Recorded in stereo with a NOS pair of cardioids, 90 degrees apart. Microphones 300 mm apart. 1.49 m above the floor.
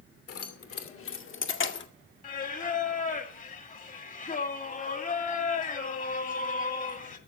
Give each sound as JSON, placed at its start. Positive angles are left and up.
{"t": 0.3, "sound": "keys jangling", "azimuth_deg": 55, "distance_m": 2.5}
{"t": 2.2, "sound": "singing", "azimuth_deg": 25, "distance_m": 2.0}